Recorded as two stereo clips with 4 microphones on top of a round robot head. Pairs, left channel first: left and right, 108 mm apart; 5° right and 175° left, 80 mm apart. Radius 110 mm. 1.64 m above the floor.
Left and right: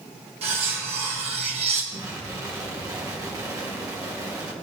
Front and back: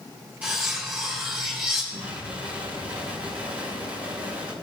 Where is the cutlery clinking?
110° right, 1.7 m.